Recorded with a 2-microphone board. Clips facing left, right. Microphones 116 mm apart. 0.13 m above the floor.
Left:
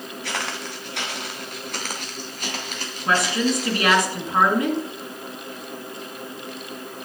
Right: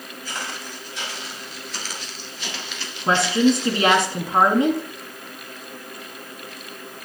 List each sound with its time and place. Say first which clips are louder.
0.2 s footsteps: left 3 dB; 80° left, 1.7 m; by 4.1 s 35° left (ahead or behind), 3 m
3.1 s a woman speaking: right 4 dB; 25° right (ahead or behind), 1.6 m